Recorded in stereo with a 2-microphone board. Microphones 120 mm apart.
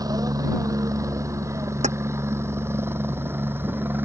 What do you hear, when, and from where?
0.0 s a helicopter: 30° right (ahead or behind); by 4.0 s 15° right (ahead or behind)
1.8 s keys jangling: 70° right (ahead or behind)